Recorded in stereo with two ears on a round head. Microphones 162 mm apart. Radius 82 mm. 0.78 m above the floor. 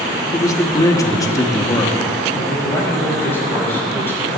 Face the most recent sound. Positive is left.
turn(degrees=15)  # may be behind; listen again after turning